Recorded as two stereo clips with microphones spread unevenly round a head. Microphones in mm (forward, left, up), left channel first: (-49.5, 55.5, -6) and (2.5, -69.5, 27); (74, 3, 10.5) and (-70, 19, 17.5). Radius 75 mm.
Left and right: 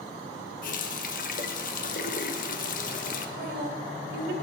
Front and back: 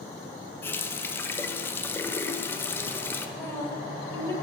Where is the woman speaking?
80° right, 2 m.